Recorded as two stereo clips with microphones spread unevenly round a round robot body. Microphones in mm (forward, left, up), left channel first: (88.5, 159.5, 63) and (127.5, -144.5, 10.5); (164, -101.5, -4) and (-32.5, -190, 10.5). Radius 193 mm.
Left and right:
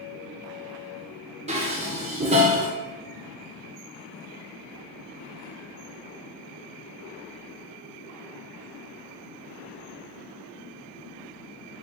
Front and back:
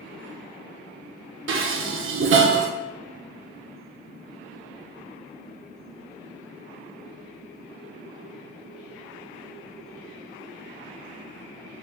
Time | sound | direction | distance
1.5 | dishes clattering | 145° right | 1.0 m